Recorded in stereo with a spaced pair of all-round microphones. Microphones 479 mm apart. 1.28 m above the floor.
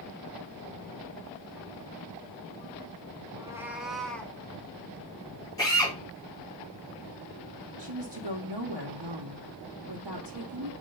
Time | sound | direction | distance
3.3 | a cat meowing | 10° right (ahead or behind) | 0.7 m
5.6 | a drill | 10° left (ahead or behind) | 4 m
7.8 | a woman speaking | 60° right (ahead or behind) | 1.0 m